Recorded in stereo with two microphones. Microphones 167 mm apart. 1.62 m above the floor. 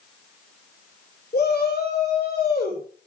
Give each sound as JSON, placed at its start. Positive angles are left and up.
{"t": 1.3, "sound": "a shout", "side_deg": 75, "distance_m": 6.0}